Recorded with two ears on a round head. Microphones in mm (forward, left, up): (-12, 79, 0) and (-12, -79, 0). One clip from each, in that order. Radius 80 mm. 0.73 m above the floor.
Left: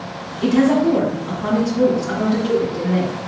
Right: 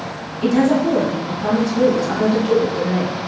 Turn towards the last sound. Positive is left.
turn(degrees=0)  # may be behind; listen again after turning